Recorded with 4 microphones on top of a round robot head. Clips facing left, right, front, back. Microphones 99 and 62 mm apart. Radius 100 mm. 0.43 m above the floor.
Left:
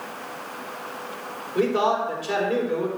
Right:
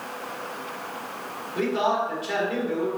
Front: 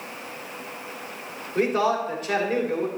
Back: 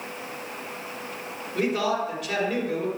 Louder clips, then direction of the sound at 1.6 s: Left 2 dB, front 3 dB; 45° left.